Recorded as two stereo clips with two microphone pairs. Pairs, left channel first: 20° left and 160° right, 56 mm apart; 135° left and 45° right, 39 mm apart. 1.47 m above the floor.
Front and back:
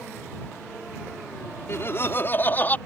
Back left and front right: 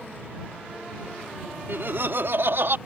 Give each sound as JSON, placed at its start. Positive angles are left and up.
{"t": 1.7, "sound": "laughter", "azimuth_deg": -25}